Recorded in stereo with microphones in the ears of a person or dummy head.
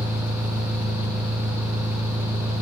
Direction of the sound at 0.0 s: 5° right (ahead or behind).